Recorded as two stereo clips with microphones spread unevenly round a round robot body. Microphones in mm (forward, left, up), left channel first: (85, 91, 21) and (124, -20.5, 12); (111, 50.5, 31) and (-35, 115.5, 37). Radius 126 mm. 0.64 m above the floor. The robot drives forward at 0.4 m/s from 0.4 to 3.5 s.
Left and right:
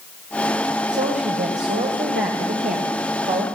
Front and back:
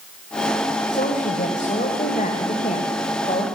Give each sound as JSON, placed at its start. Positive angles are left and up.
{"t": 0.9, "sound": "a woman speaking", "azimuth_deg": -80, "distance_m": 3.5}